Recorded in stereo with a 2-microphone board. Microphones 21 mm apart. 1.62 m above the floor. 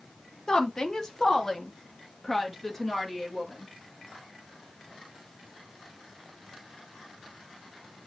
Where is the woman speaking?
35° left (ahead or behind), 1.7 m; by 3.7 s 10° left (ahead or behind), 3 m.